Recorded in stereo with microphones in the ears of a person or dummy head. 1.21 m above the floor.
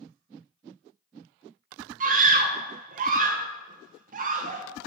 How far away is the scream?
About 0.8 m.